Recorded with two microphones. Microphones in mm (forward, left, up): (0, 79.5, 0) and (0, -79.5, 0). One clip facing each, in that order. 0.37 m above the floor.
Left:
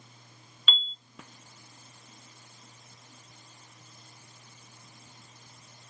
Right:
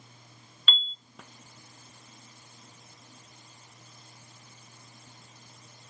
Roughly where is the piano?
Centre.